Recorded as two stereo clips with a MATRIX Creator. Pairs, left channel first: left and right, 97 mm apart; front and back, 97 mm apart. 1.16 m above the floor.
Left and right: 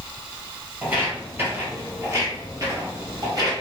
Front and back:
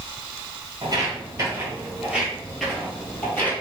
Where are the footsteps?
155° right, 1.5 m; by 3.5 s 60° right, 1.6 m.